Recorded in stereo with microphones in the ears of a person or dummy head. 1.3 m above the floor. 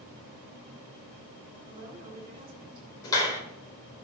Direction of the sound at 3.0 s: 20° left (ahead or behind).